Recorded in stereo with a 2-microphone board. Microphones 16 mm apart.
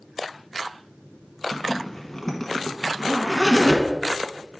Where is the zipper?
15° left (ahead or behind), 0.9 m.